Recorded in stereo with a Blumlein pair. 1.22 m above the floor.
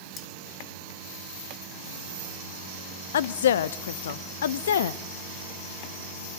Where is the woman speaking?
60° left, 0.8 m.